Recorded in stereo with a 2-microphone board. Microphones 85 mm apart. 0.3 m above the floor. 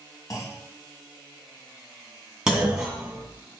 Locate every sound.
0.3 s a clunk: 40° left (ahead or behind), 2 m
2.5 s a clunk: 10° right (ahead or behind), 2 m